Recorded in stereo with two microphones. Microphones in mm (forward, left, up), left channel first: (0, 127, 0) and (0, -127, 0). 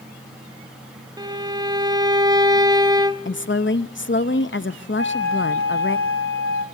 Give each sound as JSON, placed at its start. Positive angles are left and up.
{"t": 1.2, "sound": "a violin", "side_deg": -15, "distance_m": 0.6}
{"t": 3.2, "sound": "a woman speaking", "side_deg": 45, "distance_m": 0.6}
{"t": 5.0, "sound": "a flute", "side_deg": -50, "distance_m": 2.0}